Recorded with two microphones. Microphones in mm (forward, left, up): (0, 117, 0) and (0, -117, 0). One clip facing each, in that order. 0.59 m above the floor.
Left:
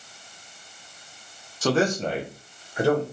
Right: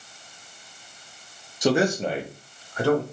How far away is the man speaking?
About 0.7 m.